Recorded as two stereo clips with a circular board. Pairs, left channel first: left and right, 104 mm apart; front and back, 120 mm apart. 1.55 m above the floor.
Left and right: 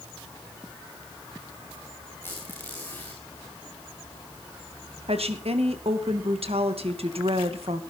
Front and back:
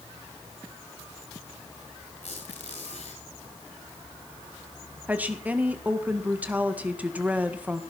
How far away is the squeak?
About 8 m.